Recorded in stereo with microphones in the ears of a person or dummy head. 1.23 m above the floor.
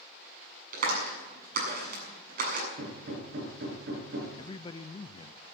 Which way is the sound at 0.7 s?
50° right (ahead or behind).